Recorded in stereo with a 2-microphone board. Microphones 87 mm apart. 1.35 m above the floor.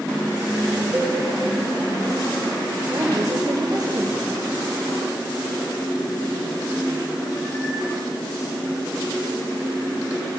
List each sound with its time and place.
0.9 s a cowbell: 20° right (ahead or behind), 1.8 m
2.9 s a woman speaking: 50° right (ahead or behind), 1.2 m